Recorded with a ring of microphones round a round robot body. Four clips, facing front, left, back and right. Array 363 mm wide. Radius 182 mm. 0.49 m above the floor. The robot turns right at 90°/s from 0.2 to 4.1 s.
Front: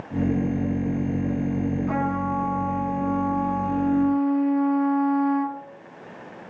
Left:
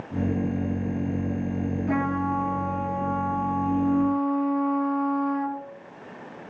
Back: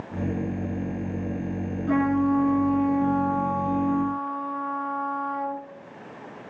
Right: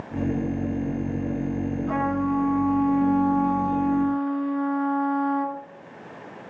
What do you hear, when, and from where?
1.9 s a trumpet: 125° left, 4.5 m; by 5.6 s 35° right, 4.5 m